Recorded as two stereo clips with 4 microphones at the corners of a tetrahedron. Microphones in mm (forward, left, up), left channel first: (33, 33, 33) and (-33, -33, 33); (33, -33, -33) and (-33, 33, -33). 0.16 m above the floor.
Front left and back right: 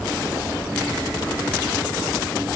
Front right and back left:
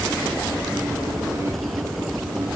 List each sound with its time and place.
Only background noise.